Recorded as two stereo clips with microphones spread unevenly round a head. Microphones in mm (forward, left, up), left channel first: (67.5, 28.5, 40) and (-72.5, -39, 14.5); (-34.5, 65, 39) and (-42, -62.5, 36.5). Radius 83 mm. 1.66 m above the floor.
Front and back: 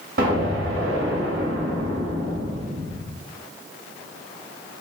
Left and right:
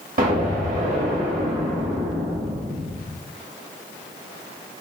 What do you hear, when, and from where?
0.2 s an explosion: 115° right, 2.5 m